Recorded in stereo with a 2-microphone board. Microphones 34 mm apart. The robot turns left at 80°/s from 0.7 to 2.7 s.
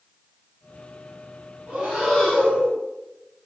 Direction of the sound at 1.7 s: 140° right.